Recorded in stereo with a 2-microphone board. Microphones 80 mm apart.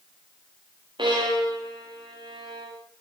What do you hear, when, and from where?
1.0 s a violin: 80° right, 9 m